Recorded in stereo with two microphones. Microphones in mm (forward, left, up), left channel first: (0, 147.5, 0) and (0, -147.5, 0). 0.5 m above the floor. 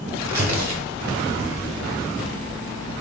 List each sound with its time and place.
0.2 s tearing paper: 65° right (ahead or behind), 0.7 m